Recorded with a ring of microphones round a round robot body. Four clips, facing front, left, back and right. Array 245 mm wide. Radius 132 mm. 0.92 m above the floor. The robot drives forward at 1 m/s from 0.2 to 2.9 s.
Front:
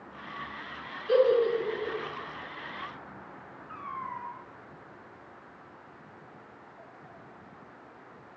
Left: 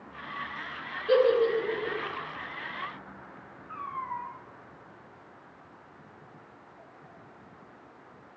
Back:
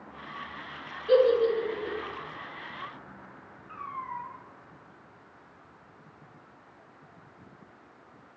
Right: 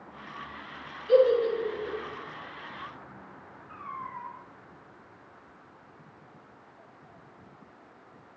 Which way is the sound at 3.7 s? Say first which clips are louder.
Left 4 dB, back 1 dB; 100° left.